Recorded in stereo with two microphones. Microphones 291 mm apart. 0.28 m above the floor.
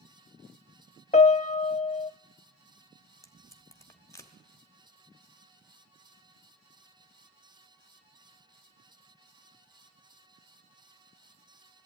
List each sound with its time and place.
1.1 s a piano: 25° left (ahead or behind), 0.5 m
3.2 s tape being pulled: 10° left (ahead or behind), 1.8 m